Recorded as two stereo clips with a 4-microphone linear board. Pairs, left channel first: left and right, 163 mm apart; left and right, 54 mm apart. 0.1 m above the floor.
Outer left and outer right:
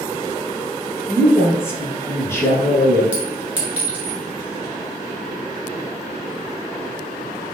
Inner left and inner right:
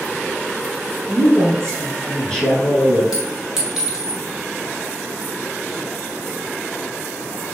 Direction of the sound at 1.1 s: 15° left (ahead or behind).